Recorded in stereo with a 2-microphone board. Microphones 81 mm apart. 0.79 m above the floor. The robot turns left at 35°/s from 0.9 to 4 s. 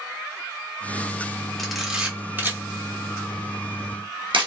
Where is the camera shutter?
Centre (ahead or behind), 0.8 m; by 4.5 s 80° right, 0.8 m.